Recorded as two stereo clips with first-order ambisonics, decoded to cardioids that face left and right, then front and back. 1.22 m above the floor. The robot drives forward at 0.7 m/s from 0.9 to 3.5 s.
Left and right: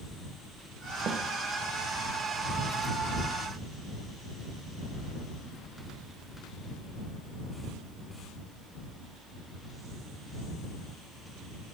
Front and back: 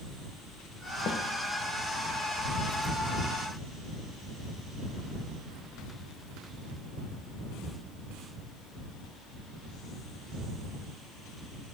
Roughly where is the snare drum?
Ahead right.